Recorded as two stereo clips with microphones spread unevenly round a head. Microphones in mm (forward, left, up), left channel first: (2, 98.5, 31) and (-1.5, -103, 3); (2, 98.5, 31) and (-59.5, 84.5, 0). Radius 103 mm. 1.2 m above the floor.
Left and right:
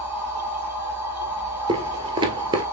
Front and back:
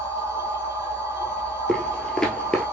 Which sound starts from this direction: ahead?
A machine running, at 0.0 s.